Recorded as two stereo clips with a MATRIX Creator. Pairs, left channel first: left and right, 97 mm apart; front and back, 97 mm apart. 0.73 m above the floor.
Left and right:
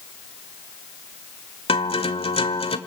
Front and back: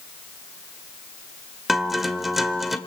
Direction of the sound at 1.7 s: 95° left.